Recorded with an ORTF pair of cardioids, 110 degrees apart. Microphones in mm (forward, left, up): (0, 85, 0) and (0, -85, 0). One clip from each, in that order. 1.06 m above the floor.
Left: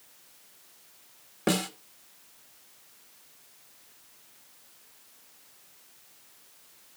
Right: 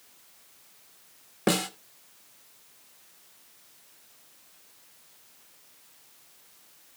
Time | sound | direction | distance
1.5 | a snare drum | 15° right | 1.3 m